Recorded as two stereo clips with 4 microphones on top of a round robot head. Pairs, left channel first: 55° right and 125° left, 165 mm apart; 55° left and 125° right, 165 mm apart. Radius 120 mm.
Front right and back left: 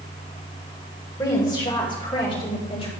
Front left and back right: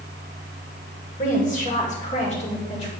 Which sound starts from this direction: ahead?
A woman speaking, at 1.2 s.